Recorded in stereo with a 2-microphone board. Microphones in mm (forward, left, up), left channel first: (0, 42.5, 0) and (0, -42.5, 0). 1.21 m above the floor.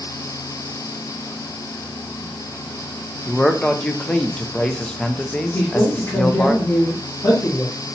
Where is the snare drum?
No snare drum in this recording.